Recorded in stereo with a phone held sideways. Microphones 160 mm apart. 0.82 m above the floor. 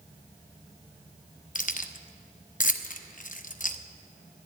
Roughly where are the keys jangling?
Left.